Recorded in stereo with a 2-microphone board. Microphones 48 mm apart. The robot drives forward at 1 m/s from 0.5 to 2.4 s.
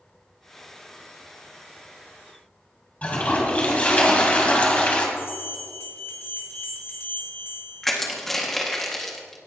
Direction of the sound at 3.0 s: 30° left (ahead or behind).